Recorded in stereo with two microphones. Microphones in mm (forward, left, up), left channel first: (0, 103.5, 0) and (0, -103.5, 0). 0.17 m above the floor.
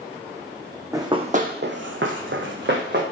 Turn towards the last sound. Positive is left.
turn(degrees=-55)  # may be behind; listen again after turning